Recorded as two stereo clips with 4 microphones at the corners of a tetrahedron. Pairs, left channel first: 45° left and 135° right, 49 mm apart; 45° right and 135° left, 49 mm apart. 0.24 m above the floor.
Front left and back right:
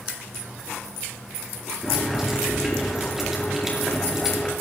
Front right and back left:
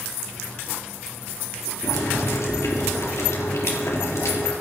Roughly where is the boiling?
Ahead right.